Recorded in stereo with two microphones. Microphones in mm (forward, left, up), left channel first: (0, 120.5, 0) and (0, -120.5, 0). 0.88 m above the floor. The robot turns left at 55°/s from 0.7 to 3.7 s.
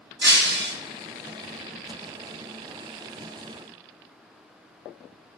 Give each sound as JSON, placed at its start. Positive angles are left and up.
{"t": 0.2, "sound": "breaking glass", "side_deg": -45, "distance_m": 0.7}